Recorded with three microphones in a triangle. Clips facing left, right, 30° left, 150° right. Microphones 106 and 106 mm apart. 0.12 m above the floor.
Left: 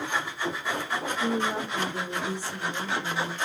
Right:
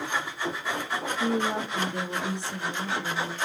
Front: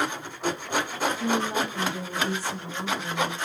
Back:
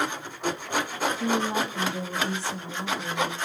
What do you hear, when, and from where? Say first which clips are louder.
1.2 s a woman speaking: right 2 dB, back 1 dB; 90° right, 3 m